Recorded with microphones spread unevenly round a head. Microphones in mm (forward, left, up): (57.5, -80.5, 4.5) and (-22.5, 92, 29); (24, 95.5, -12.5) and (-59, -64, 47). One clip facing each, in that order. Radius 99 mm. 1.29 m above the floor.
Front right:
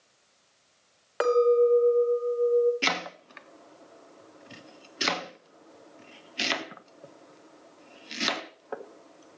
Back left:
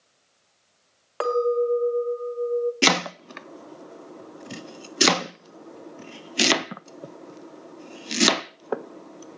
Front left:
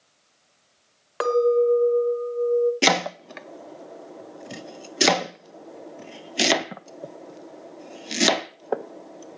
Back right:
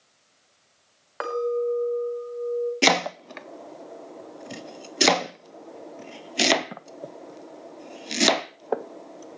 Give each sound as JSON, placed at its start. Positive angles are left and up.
{"t": 1.2, "sound": "a clink", "azimuth_deg": 10, "distance_m": 1.7}
{"t": 2.8, "sound": "chopping", "azimuth_deg": 135, "distance_m": 0.5}